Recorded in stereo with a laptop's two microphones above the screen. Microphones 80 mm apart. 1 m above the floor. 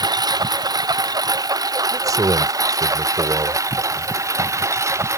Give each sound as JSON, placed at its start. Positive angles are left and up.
{"t": 0.0, "sound": "a lawn mower", "side_deg": -55}
{"t": 1.9, "sound": "a man speaking", "side_deg": -50}